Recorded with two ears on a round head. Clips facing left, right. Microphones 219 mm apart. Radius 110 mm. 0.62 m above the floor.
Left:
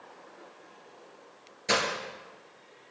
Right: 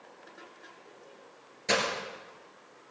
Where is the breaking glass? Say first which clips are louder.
Even; centre (ahead or behind), 2.5 m.